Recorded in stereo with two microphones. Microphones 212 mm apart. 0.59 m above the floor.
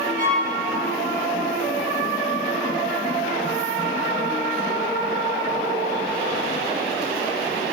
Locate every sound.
0.2 s a violin: 45° right (ahead or behind), 3 m